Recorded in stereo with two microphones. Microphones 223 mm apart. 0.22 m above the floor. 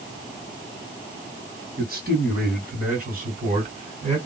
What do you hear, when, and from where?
1.8 s a man speaking: 45° right (ahead or behind), 2 m; by 4.2 s 35° right (ahead or behind), 2.5 m